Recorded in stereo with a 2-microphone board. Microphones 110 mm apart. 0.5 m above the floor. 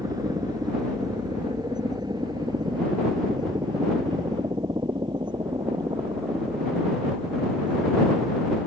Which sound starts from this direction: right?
A helicopter, at 0.0 s.